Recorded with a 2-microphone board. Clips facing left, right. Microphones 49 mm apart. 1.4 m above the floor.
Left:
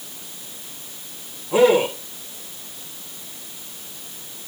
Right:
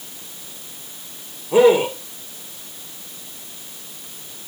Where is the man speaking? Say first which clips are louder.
Right 2 dB; 15° right (ahead or behind), 1.9 m.